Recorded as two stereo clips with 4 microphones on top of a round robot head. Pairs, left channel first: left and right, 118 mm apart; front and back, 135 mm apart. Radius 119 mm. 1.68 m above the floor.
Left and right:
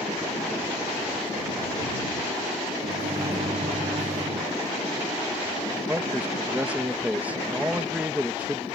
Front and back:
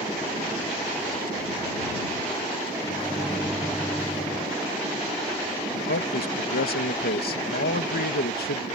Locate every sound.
2.8 s a microwave: 80° right
5.7 s a man speaking: 10° right